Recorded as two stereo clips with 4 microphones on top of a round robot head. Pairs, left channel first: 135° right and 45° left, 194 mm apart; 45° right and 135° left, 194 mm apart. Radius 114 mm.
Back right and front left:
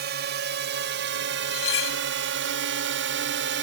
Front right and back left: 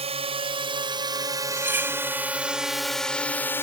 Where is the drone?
80° left; by 3.6 s 35° left.